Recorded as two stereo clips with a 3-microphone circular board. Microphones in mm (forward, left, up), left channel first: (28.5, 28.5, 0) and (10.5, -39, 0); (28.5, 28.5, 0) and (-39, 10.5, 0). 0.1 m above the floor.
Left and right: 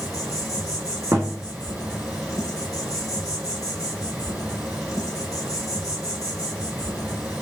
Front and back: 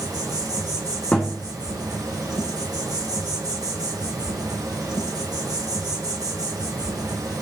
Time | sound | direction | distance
0.0 | an insect | straight behind | 2 m
1.1 | a thud | 55° right | 1.3 m